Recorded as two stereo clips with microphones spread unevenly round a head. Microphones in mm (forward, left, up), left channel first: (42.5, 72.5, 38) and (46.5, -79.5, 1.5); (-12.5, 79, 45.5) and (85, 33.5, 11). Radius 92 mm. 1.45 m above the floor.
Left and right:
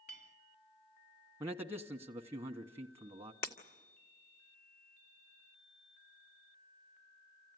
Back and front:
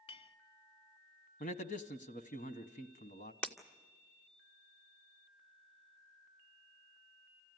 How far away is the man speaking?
About 0.9 m.